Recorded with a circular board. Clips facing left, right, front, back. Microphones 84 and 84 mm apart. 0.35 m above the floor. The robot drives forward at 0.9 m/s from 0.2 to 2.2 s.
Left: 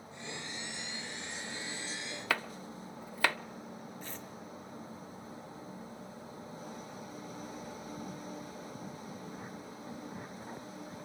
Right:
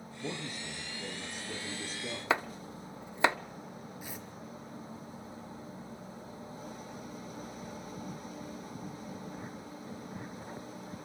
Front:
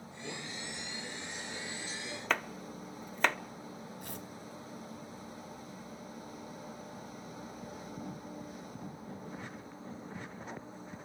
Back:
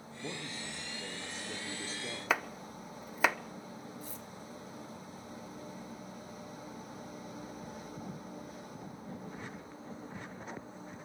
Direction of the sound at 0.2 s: 115° right.